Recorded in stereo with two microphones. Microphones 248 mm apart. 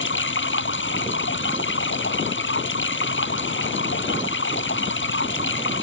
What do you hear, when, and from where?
0.0 s running water: 50° left (ahead or behind)